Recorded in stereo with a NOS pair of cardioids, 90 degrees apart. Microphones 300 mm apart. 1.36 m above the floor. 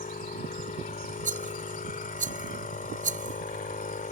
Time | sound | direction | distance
0.0 | a machine running | 25° left | ?
1.2 | a rattle | 25° right | ?